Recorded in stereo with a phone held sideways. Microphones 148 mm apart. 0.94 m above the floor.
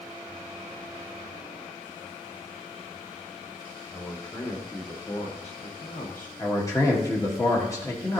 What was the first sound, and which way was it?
A man speaking, 15° left (ahead or behind).